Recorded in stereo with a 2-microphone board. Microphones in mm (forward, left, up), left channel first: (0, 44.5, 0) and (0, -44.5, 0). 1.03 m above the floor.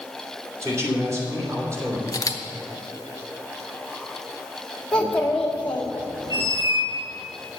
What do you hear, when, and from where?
0.6 s a man speaking: 35° right (ahead or behind), 2.5 m
2.1 s a camera shutter: 40° left (ahead or behind), 0.9 m
4.9 s a child speaking: 10° left (ahead or behind), 1.9 m
6.3 s a squeak: 50° right (ahead or behind), 4.5 m